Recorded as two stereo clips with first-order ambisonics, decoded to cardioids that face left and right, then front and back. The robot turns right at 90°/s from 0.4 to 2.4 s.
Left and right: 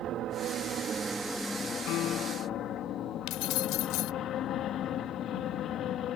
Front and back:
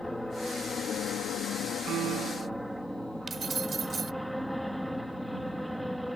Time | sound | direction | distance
0.0 | an aircraft | 85° right | ?
1.9 | a piano | 125° left | ?
3.3 | keys jangling | 110° left | ?